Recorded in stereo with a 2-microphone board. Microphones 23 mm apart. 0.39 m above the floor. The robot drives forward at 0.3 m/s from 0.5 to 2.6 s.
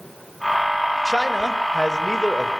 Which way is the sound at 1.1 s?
20° left (ahead or behind).